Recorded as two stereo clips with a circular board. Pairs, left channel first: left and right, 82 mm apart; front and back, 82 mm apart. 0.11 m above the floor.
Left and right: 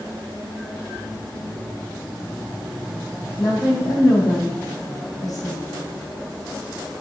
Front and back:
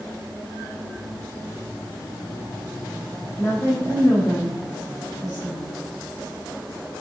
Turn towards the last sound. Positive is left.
turn(degrees=50)